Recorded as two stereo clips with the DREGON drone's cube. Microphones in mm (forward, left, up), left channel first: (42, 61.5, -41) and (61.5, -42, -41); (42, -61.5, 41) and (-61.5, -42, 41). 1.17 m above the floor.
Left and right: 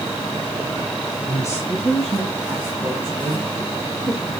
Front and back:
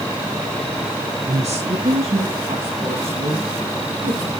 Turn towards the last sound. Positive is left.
turn(degrees=-145)